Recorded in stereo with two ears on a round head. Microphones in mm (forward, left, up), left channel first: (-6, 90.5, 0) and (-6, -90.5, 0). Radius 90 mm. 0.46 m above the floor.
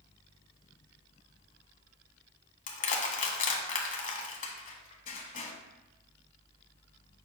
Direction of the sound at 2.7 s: 40° left (ahead or behind).